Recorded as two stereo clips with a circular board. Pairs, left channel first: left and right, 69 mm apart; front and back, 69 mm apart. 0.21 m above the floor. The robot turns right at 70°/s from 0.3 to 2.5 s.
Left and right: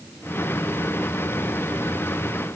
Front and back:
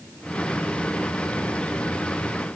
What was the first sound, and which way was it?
Only background noise.